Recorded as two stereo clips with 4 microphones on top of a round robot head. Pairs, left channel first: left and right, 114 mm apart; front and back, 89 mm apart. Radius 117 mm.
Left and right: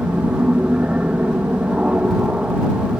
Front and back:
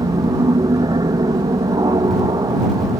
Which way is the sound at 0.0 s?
170° right.